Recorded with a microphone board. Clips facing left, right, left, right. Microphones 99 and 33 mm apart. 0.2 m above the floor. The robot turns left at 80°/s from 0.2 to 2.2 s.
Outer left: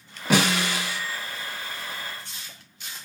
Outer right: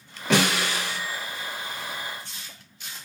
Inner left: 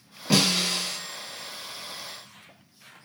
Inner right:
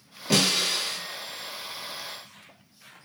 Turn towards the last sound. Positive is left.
turn(degrees=-140)